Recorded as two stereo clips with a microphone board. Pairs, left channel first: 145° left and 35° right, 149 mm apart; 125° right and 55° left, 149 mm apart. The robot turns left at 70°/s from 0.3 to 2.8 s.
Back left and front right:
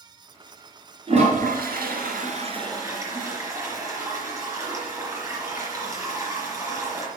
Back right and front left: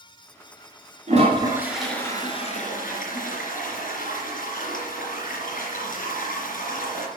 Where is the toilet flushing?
20° left, 3 m; by 7.1 s 105° right, 3 m.